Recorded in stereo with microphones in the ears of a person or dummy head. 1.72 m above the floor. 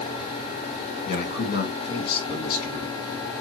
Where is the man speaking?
55° left (ahead or behind), 2.5 m; by 3.0 s 45° left (ahead or behind), 4 m.